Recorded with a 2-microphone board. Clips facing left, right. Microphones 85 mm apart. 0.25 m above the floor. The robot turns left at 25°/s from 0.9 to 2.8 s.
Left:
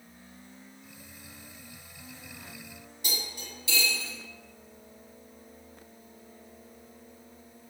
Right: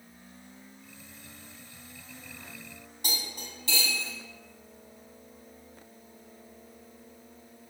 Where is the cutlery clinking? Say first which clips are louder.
Right 1 dB; 50° right (ahead or behind), 1.0 m.